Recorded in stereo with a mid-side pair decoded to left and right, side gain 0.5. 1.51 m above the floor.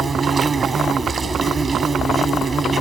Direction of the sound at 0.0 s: 30° right.